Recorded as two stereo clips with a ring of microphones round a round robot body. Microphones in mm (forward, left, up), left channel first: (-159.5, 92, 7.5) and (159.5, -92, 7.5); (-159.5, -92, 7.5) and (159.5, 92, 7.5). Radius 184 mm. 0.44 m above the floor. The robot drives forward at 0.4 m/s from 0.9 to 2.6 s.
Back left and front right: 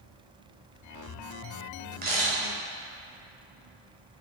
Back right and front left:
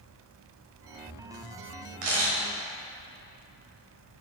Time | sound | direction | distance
2.0 | a camera shutter | 35° left | 2 m